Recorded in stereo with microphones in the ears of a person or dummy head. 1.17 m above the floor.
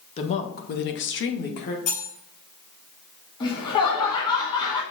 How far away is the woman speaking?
About 1.2 m.